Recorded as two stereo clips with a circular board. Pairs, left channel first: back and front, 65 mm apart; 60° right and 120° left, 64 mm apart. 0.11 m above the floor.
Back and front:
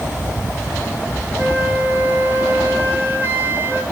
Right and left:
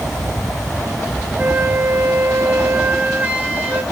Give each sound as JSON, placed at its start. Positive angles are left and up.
{"t": 1.4, "sound": "a flute", "azimuth_deg": 55, "distance_m": 1.2}